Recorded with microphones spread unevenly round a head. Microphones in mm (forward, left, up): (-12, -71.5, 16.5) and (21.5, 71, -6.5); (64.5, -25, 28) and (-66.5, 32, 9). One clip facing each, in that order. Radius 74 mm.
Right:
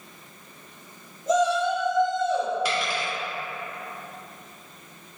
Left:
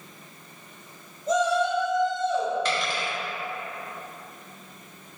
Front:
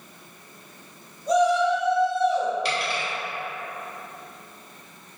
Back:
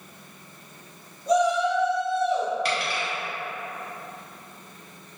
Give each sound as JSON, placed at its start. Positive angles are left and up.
{"t": 1.3, "sound": "a shout", "azimuth_deg": -130, "distance_m": 1.8}
{"t": 2.6, "sound": "a dropped coin", "azimuth_deg": -170, "distance_m": 0.9}